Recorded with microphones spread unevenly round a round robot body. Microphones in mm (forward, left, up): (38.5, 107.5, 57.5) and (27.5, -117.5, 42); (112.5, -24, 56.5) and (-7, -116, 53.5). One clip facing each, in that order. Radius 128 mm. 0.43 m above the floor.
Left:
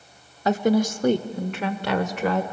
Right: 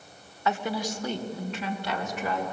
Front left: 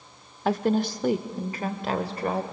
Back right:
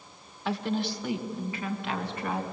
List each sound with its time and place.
0.5 s a woman speaking: 50° left, 1.0 m; by 2.4 s 95° left, 1.6 m